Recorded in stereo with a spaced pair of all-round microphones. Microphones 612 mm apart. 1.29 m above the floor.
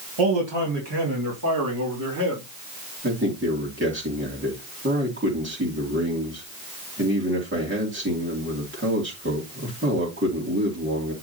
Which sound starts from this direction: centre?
A man speaking, at 3.0 s.